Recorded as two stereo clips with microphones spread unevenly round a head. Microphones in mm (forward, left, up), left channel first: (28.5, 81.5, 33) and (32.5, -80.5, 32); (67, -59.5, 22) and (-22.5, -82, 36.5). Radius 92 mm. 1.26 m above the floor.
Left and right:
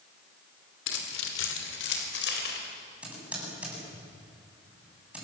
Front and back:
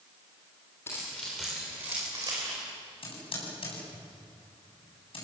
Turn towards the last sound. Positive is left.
turn(degrees=-5)